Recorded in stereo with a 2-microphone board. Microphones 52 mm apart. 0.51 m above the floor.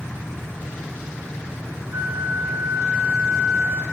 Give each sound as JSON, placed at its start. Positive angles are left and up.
{"t": 1.9, "sound": "a flute", "side_deg": -45, "distance_m": 9.5}